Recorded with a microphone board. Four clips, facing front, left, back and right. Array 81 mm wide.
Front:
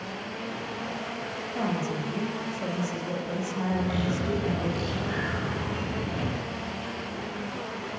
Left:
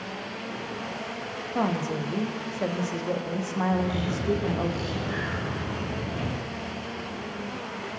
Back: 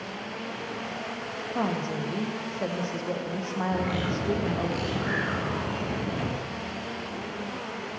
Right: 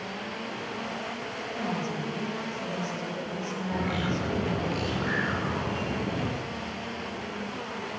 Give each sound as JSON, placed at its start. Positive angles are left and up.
{"t": 1.6, "sound": "a woman speaking", "azimuth_deg": 115, "distance_m": 5.5}
{"t": 3.7, "sound": "a bird", "azimuth_deg": -135, "distance_m": 6.5}